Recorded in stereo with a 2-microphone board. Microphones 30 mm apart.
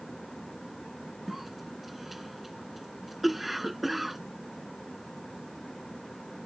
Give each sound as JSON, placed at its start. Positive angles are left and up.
{"t": 1.3, "sound": "a cough", "side_deg": -5}